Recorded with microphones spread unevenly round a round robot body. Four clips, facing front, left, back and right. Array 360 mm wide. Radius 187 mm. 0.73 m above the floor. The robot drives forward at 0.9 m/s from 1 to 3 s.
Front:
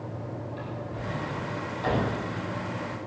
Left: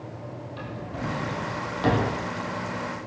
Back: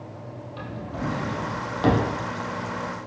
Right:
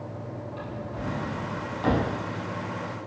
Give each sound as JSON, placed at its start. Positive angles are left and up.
{"t": 0.6, "sound": "a drawer", "azimuth_deg": 165, "distance_m": 7.0}